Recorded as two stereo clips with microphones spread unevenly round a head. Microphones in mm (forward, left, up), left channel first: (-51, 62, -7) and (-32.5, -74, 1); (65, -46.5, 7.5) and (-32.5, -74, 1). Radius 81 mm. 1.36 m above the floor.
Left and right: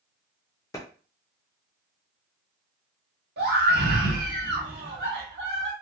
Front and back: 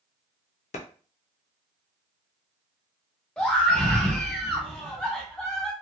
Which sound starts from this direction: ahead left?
A clap, at 0.7 s.